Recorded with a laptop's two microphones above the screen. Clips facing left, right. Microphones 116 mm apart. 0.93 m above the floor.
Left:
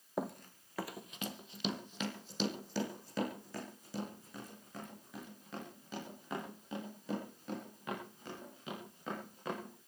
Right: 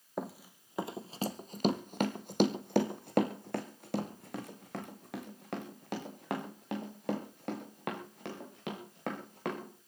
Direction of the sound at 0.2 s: Centre (ahead or behind).